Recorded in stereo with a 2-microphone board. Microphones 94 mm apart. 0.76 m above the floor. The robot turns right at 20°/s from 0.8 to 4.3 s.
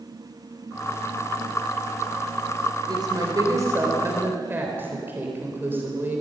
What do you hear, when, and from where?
2.9 s a woman speaking: 50° right (ahead or behind), 3.5 m; by 6.2 s 25° right (ahead or behind), 3.5 m